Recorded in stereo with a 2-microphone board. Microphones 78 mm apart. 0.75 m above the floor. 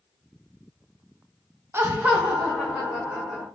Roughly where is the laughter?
Right.